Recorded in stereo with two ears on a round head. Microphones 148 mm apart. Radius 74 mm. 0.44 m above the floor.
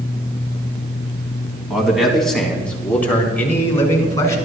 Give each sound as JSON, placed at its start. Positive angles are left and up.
{"t": 1.7, "sound": "a man speaking", "side_deg": -5, "distance_m": 3.5}